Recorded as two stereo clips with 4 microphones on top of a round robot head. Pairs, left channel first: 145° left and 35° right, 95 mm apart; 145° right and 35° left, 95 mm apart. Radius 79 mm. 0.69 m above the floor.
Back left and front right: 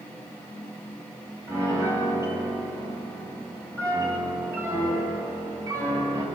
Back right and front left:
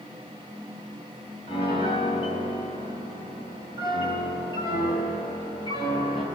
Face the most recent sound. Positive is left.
turn(degrees=-95)